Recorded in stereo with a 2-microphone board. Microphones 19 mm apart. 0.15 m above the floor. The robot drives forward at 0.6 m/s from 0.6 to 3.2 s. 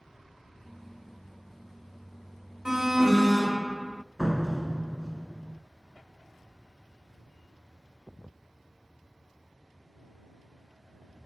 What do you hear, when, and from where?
2.6 s an alarm: 20° right (ahead or behind), 0.9 m
4.2 s a door slam: 15° right (ahead or behind), 1.4 m